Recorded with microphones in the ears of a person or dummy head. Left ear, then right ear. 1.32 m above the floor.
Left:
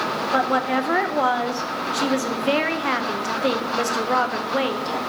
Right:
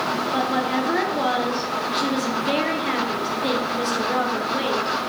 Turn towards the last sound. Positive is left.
turn(degrees=40)  # may be behind; listen again after turning